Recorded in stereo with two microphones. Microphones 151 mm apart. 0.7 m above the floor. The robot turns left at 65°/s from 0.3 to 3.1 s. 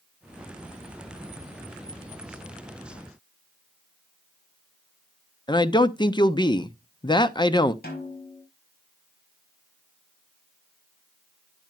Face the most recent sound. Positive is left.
turn(degrees=80)